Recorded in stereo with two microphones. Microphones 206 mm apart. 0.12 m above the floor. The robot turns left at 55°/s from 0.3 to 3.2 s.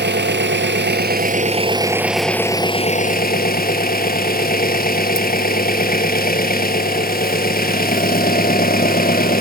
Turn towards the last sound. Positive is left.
turn(degrees=125)